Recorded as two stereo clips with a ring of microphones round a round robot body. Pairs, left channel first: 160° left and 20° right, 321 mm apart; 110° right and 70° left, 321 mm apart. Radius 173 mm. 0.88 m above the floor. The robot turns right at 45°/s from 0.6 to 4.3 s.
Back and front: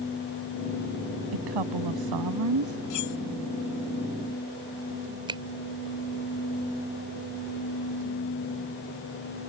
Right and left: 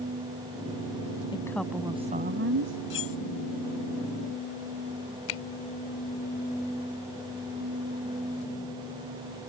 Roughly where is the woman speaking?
Ahead right.